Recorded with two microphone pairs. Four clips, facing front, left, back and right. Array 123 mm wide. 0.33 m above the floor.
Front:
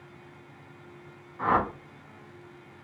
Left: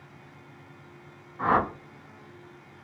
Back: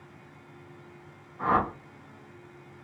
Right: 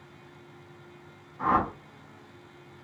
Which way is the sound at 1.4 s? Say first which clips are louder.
Left 1 dB, even; 65° left.